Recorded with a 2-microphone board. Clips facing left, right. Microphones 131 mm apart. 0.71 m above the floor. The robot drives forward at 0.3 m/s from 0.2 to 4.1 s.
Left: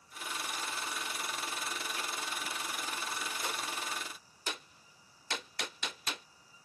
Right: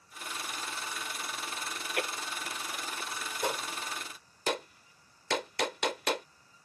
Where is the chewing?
70° right (ahead or behind).